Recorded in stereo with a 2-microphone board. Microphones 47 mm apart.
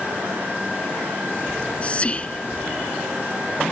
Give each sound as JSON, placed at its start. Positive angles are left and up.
{"t": 1.5, "sound": "whispering", "side_deg": 25}